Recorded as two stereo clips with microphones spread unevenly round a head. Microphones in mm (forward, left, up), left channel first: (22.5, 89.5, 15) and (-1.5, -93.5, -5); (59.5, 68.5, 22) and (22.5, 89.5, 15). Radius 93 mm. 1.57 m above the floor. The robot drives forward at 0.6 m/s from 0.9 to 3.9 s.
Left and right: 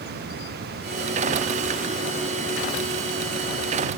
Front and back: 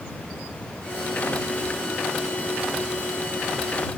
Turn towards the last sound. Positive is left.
No sound to turn to.